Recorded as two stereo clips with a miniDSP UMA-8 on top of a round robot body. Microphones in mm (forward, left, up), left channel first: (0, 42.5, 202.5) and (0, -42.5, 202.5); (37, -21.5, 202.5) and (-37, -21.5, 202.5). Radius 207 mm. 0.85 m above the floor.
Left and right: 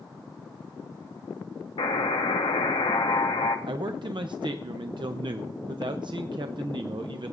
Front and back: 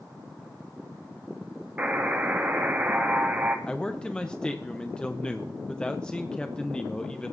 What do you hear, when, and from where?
1.8 s a buzzer: 110° left, 0.5 m
3.7 s a man speaking: 75° right, 0.7 m